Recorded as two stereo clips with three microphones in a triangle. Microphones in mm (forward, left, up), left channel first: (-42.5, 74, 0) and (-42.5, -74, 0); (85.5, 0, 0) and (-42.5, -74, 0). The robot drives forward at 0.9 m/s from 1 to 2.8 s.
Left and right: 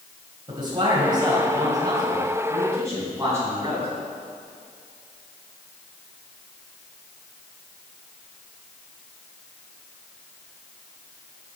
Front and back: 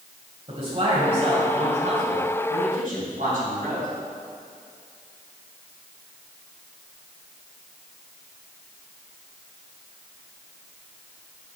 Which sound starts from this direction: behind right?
A man speaking, at 0.5 s.